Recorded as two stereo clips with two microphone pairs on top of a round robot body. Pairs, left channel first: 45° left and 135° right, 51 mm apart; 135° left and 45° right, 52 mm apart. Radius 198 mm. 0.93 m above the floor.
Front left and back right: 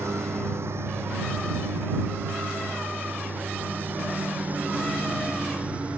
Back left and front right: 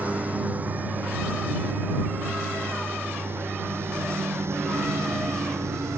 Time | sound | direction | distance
0.0 | a lawn mower | 105° right | ?